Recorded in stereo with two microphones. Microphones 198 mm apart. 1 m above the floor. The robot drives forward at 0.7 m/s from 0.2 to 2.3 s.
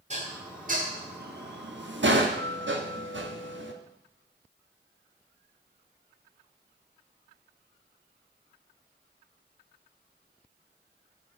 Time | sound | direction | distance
0.1 | dishes clattering | 40° right (ahead or behind) | 1.9 m